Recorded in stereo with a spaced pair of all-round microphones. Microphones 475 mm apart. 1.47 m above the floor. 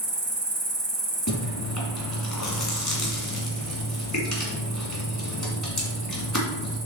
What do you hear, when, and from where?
0.0 s an insect: 65° right (ahead or behind), 1.0 m
1.3 s chewing: 35° left (ahead or behind), 2 m